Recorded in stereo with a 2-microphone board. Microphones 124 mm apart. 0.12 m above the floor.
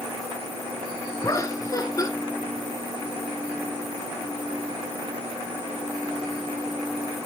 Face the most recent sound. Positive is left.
turn(degrees=30)  # may be behind; listen again after turning